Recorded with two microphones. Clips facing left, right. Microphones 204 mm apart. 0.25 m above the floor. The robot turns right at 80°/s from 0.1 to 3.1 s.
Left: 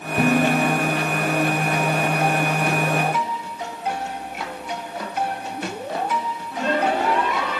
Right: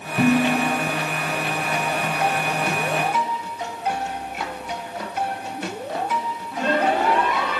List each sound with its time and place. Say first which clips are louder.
0.2 s dishes clattering: even; 155° left, 3 m; by 0.8 s 155° right, 3 m